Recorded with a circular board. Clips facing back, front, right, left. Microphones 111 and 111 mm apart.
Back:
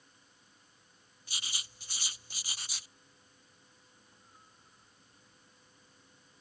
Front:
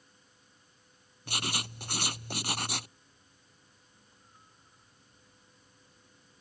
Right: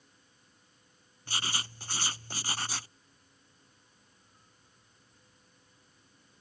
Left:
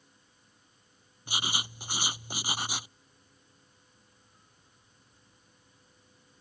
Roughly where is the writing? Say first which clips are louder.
Front 12 dB, left 2 dB; ahead.